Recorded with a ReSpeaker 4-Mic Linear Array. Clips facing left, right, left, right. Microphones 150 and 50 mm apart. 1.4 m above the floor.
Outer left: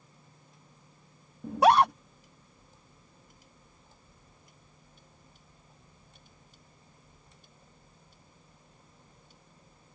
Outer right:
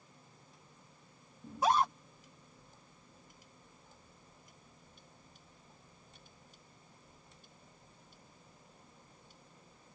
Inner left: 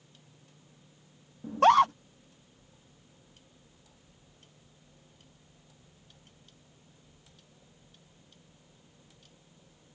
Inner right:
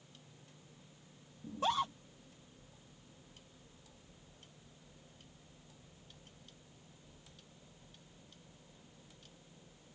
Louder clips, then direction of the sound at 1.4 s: Outer left 9 dB, inner left 14 dB; 70° left (ahead or behind).